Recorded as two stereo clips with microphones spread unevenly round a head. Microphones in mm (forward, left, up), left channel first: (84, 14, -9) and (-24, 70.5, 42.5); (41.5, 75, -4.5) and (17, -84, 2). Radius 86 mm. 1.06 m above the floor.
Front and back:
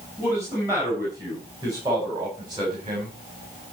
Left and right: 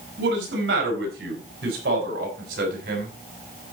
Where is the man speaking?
130° right, 8 m; by 3.1 s 145° right, 7 m.